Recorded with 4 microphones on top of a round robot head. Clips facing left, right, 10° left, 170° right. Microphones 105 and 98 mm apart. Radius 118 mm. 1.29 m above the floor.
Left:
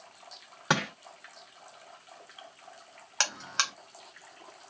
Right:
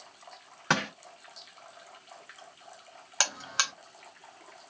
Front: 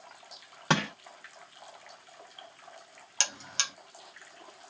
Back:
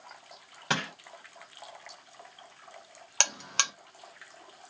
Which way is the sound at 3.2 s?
175° right.